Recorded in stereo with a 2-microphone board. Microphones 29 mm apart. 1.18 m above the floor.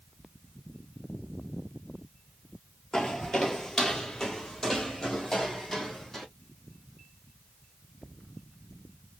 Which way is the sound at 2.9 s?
20° left (ahead or behind).